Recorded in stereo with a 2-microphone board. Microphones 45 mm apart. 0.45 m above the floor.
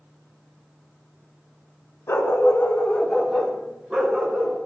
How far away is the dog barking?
About 1.2 m.